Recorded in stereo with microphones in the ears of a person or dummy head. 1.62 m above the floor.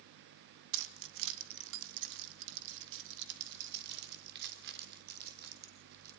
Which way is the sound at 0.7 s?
70° right (ahead or behind).